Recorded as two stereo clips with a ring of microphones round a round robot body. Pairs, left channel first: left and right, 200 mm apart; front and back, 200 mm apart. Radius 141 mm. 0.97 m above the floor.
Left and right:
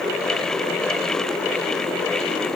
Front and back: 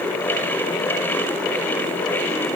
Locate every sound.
Only background noise.